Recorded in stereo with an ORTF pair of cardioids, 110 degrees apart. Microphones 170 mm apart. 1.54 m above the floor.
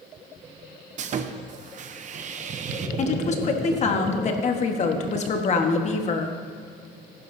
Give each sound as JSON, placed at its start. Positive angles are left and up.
{"t": 1.0, "sound": "sawing", "azimuth_deg": -45, "distance_m": 0.8}
{"t": 3.0, "sound": "a woman speaking", "azimuth_deg": 45, "distance_m": 1.5}